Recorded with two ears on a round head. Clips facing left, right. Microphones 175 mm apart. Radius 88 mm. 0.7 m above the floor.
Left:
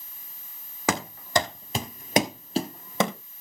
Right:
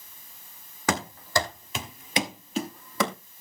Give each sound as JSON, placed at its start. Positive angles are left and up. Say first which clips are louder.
{"t": 0.9, "sound": "running footsteps", "louder": "left 1 dB", "side_deg": 10, "distance_m": 2.0}